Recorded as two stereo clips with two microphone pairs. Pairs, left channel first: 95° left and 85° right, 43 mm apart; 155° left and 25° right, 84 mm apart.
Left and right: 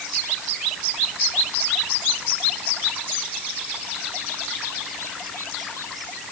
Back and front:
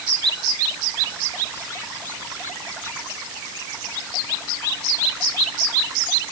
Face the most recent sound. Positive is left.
No sound to turn to.